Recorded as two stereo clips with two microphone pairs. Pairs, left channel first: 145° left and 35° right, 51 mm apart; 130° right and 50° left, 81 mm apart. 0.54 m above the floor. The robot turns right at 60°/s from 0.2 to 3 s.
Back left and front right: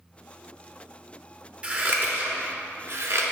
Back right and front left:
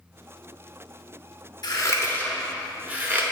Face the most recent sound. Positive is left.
turn(degrees=-15)